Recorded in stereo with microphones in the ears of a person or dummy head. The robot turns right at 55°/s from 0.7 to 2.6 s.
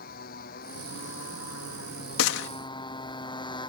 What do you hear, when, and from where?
0.0 s a motorcycle: 50° left; by 3.7 s 155° left
2.2 s a gunshot: 75° left (ahead or behind); by 2.5 s 65° left (ahead or behind)